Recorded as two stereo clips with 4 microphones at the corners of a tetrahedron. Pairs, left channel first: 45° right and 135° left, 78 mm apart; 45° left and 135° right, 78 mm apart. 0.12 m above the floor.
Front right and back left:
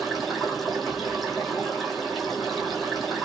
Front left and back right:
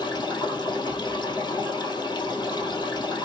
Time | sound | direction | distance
0.0 | running water | 45° left | 1.8 m